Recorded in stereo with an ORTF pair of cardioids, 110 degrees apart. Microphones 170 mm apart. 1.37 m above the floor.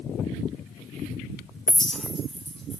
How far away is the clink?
About 0.7 m.